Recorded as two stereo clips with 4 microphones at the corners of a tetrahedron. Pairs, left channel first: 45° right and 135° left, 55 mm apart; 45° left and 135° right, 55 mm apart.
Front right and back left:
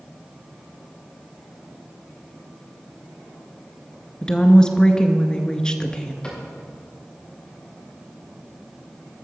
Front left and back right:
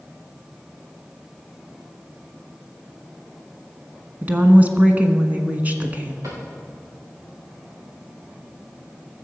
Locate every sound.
4.2 s a woman speaking: 110° right, 1.3 m
6.2 s a cupboard door: 120° right, 5 m